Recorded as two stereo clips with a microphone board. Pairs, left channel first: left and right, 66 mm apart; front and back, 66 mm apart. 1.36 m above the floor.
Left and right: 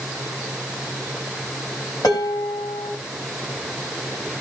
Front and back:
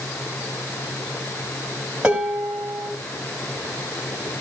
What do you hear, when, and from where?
2.0 s dishes clattering: 105° left, 5 m